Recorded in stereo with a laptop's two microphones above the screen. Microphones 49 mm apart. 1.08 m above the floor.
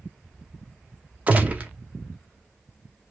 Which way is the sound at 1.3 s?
25° right (ahead or behind).